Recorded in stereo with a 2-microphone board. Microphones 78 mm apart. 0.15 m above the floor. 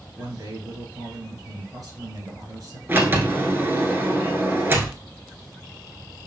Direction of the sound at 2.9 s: 30° right (ahead or behind).